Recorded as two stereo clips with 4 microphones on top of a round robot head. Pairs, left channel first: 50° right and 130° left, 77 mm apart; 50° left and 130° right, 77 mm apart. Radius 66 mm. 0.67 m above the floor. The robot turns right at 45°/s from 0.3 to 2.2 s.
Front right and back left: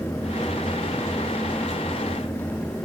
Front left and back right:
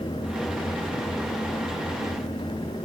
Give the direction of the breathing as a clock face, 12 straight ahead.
No breathing in this recording.